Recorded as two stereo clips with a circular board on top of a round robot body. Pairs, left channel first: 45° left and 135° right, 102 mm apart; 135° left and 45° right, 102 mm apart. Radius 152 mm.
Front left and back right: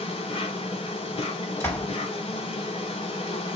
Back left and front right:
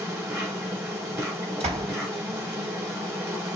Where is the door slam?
20° right, 3.5 m.